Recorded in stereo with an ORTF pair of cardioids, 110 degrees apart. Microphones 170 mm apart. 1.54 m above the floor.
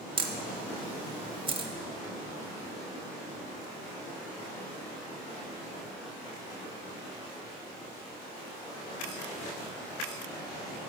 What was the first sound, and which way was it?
A camera shutter, 30° right.